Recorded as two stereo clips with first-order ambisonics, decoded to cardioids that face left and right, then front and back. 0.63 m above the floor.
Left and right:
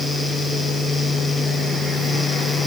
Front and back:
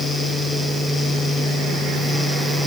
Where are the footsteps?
No footsteps in this recording.